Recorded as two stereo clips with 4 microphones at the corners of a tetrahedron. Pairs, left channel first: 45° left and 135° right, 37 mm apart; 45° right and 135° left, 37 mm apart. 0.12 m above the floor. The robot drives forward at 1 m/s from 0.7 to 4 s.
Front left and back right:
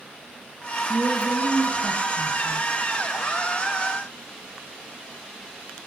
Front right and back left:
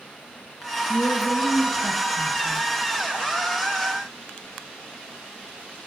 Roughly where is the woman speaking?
Right.